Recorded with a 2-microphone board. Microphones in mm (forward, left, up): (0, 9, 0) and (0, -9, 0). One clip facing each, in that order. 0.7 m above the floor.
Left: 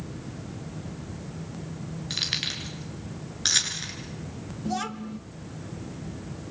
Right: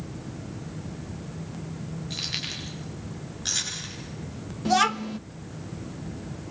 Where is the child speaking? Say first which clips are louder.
Right 9 dB; 45° right (ahead or behind), 0.5 m.